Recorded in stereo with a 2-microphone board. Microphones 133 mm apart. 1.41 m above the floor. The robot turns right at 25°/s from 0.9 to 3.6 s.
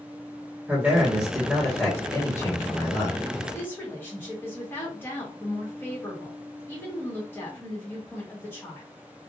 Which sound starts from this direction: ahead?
A man speaking, at 0.7 s.